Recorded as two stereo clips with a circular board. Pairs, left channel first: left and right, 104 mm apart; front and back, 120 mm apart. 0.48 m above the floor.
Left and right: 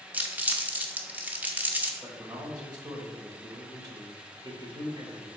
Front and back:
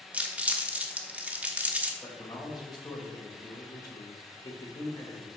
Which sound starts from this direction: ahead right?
A man speaking, at 2.0 s.